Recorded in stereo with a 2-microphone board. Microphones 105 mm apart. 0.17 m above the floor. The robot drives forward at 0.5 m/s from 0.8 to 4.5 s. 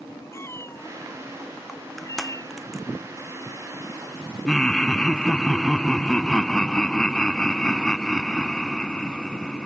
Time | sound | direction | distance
0.3 | a cat meowing | 25° left (ahead or behind) | ?
1.7 | crushing | centre (ahead or behind) | ?
4.5 | laughter | 5° left (ahead or behind) | ?